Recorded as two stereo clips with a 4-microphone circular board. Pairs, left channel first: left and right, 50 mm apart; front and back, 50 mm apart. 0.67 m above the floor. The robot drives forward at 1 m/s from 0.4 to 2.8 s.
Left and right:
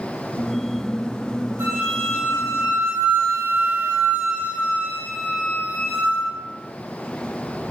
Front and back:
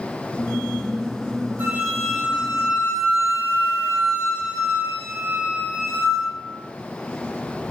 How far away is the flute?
About 5 m.